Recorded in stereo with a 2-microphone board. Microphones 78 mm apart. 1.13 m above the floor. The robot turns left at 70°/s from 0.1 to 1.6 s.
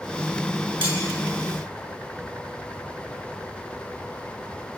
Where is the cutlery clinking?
85° right, 9 m; by 1.0 s 80° right, 9 m.